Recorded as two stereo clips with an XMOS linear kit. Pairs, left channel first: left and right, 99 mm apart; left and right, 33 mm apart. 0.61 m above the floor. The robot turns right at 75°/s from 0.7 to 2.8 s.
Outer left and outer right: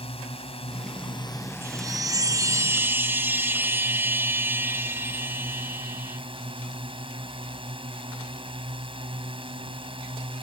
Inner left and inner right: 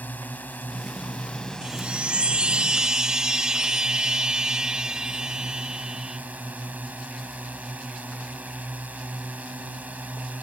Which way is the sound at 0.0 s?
90° left.